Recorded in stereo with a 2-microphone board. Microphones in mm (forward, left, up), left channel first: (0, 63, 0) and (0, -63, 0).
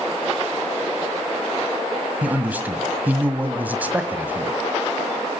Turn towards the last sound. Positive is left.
turn(degrees=-15)  # may be behind; listen again after turning